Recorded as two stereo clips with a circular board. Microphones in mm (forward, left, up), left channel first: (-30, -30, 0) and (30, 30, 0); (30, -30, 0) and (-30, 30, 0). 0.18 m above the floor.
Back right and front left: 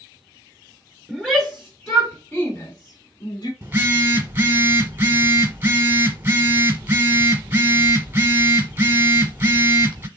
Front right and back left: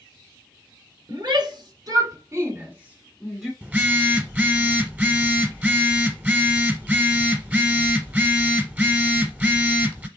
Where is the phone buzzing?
85° left, 1.2 m.